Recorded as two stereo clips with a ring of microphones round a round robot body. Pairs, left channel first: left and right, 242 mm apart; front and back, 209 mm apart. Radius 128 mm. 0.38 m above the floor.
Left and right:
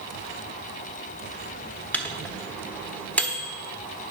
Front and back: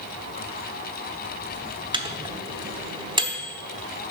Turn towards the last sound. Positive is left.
turn(degrees=165)